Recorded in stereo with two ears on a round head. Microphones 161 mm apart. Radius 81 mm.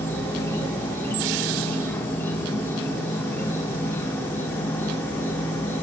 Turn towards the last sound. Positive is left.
turn(degrees=10)  # may be behind; listen again after turning